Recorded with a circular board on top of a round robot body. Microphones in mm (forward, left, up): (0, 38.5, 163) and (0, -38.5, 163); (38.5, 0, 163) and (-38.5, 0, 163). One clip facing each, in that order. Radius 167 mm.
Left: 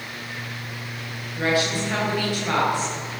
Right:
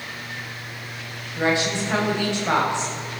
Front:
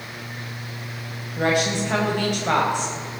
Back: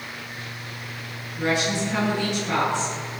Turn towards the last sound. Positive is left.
turn(degrees=-20)